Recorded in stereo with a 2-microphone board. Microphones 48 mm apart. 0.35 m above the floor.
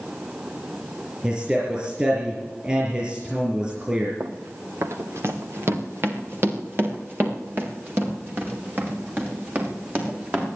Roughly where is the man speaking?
Right.